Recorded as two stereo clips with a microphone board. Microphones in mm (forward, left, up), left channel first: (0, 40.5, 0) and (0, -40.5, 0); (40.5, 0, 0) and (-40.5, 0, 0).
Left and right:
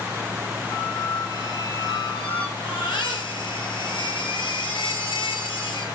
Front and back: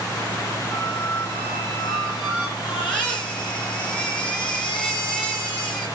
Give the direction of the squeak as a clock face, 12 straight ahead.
9 o'clock.